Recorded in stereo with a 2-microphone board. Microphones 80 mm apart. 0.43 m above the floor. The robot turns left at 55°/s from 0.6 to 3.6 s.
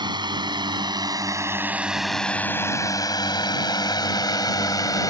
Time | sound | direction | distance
0.0 | a drone | 70° right (ahead or behind) | ?